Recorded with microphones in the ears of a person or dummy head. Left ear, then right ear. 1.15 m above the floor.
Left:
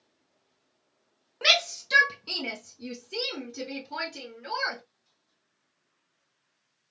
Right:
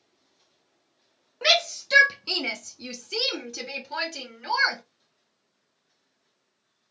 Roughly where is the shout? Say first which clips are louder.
Right 1 dB; centre.